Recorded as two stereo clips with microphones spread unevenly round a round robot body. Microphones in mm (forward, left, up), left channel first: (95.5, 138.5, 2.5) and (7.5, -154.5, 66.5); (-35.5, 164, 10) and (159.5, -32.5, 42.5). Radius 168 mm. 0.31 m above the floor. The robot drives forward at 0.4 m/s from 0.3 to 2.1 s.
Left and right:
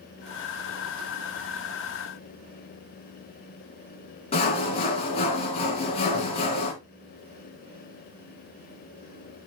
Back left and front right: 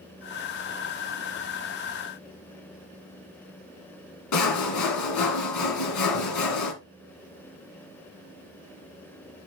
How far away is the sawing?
About 2 m.